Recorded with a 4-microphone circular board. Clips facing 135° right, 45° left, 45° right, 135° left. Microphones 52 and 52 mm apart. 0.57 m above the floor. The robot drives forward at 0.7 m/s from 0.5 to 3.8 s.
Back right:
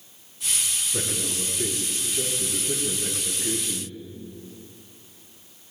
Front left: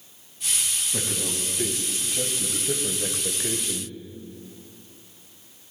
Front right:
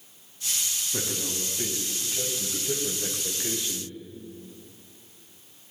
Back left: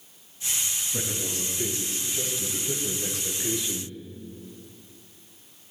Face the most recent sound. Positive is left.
turn(degrees=45)